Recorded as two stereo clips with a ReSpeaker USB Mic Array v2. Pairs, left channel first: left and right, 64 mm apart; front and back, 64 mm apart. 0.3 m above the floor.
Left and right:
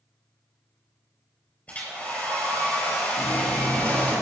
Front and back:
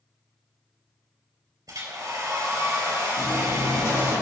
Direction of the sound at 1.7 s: 160° left.